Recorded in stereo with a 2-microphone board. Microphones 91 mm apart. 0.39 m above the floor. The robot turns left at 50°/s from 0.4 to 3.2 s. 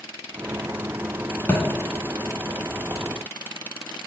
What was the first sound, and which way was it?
A thud, 25° left (ahead or behind).